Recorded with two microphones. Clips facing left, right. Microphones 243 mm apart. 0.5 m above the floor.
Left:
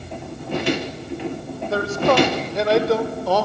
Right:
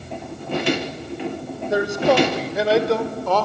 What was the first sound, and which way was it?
A man speaking, 15° right (ahead or behind).